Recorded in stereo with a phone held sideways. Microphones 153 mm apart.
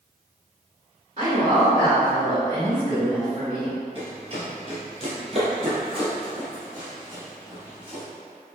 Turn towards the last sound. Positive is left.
turn(degrees=-25)  # may be behind; listen again after turning